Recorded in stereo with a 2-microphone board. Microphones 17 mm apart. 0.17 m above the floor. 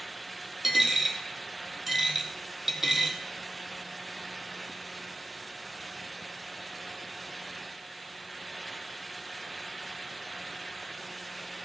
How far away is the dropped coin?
About 1.1 m.